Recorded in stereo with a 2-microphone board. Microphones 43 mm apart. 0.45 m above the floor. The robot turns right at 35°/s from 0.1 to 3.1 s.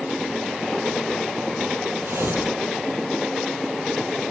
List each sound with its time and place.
2.0 s tearing paper: 85° right, 7.5 m; by 2.6 s 65° right (ahead or behind), 7.5 m